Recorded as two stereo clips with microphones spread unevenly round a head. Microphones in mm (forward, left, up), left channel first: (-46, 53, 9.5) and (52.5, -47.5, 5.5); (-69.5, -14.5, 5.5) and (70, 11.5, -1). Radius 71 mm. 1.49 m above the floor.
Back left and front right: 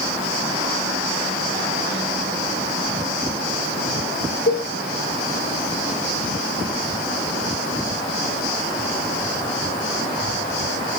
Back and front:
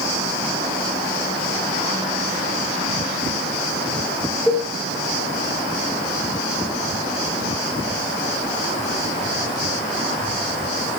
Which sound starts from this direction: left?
A cowbell, at 4.5 s.